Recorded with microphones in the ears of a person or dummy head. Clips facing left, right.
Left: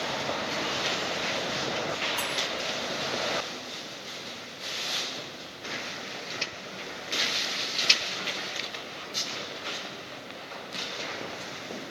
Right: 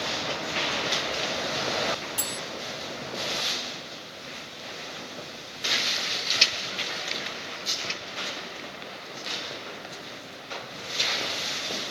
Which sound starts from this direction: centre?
Cutlery clinking, at 2.2 s.